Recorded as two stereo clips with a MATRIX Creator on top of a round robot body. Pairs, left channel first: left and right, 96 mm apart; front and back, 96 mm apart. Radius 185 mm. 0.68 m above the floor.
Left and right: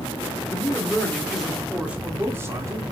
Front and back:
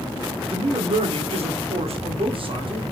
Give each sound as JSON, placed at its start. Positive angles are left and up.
{"t": 0.5, "sound": "a man speaking", "azimuth_deg": 155, "distance_m": 2.5}